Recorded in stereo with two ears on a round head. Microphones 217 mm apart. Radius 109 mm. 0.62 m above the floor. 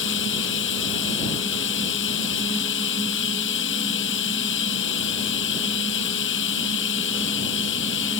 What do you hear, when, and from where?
0.0 s running water: 50° left (ahead or behind)